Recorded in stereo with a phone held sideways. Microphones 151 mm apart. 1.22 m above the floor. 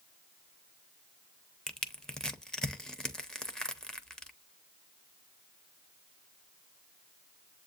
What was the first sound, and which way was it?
Crushing, 5° left (ahead or behind).